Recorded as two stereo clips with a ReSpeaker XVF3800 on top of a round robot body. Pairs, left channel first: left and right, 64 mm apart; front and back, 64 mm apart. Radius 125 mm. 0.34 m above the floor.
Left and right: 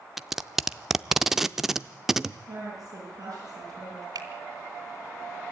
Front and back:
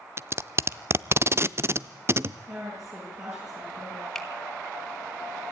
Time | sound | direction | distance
0.2 | tape being pulled | 170° right | 0.7 m
2.5 | a woman speaking | 130° right | 8 m
4.2 | a finger snap | 85° right | 3 m